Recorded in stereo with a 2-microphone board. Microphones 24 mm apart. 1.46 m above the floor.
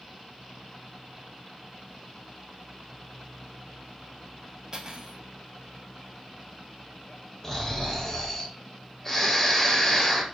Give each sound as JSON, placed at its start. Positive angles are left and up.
{"t": 4.7, "sound": "cutlery clinking", "side_deg": -30, "distance_m": 0.6}
{"t": 7.4, "sound": "snoring", "side_deg": 15, "distance_m": 0.5}